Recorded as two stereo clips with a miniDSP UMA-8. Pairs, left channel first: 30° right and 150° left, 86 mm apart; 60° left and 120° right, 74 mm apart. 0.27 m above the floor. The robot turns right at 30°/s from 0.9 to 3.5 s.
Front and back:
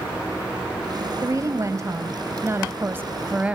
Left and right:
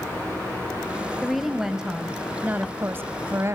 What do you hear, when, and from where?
1.2 s a woman speaking: 145° left, 1.2 m; by 3.5 s 145° right, 1.2 m